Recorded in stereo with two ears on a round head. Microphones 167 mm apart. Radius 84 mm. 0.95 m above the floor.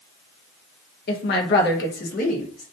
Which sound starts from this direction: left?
A woman speaking, at 1.1 s.